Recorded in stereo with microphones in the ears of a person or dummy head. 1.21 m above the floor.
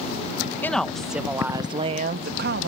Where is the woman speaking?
5° left (ahead or behind); by 2.7 s 55° right (ahead or behind).